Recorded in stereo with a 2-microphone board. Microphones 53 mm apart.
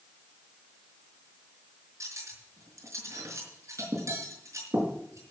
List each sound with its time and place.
2.0 s cutlery clinking: 80° right, 4.5 m